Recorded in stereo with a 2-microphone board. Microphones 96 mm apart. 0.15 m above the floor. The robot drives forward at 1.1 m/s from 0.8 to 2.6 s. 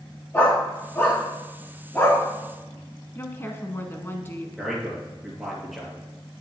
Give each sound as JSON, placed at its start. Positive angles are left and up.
{"t": 0.3, "sound": "a dog barking", "side_deg": 20, "distance_m": 4.5}
{"t": 3.1, "sound": "a woman speaking", "side_deg": 25, "distance_m": 1.2}
{"t": 4.6, "sound": "a man speaking", "side_deg": 0, "distance_m": 3.5}